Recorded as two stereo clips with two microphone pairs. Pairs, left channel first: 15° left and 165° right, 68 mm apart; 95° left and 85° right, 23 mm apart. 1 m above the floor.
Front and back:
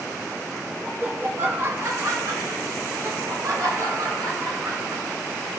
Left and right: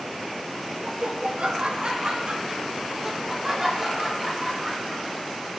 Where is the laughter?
100° right, 1.8 m; by 5.5 s 175° right, 4 m.